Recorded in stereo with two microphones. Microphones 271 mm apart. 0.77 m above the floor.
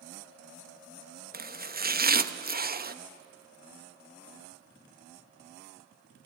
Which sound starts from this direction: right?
Chopping, at 1.3 s.